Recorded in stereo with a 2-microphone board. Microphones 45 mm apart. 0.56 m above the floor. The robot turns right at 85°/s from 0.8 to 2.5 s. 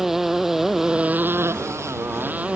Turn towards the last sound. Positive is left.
turn(degrees=-25)